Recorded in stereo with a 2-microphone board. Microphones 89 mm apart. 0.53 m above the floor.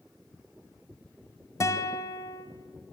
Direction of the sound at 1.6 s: 40° left (ahead or behind).